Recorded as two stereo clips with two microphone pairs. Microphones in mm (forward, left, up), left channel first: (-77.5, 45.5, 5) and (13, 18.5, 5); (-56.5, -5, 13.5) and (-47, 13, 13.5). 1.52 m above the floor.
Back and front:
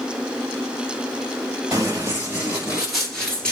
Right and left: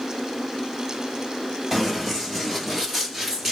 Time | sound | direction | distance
1.7 | running footsteps | 40° right | 1.7 m